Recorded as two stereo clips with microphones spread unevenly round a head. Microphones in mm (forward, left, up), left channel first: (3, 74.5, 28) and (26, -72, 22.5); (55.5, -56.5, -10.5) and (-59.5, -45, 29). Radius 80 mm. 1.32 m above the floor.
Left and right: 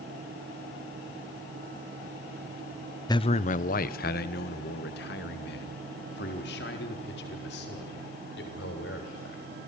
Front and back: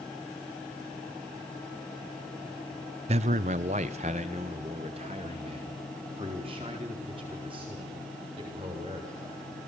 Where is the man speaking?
145° left, 0.5 m; by 9.4 s 110° left, 7 m.